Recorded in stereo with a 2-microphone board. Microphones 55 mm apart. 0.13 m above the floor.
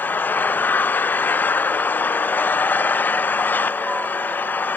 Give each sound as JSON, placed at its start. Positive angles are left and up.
{"t": 0.0, "sound": "an engine running", "side_deg": 35}